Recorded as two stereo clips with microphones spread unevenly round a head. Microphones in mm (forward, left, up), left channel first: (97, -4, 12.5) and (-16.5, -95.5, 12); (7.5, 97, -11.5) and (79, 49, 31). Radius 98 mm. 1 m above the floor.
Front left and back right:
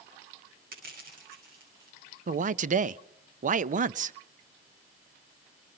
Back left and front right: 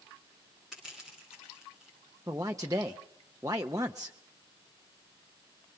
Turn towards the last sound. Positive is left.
turn(degrees=-110)